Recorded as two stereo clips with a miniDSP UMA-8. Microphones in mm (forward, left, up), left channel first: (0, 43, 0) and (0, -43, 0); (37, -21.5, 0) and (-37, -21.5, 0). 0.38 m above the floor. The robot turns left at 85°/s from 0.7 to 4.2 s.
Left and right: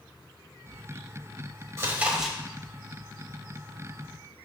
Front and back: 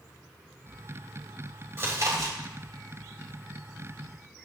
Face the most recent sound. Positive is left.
turn(degrees=20)